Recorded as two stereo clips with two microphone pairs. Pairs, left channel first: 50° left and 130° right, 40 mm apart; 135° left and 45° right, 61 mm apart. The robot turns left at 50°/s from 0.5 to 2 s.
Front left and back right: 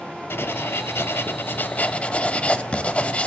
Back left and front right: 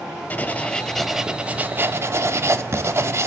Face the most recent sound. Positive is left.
turn(degrees=-5)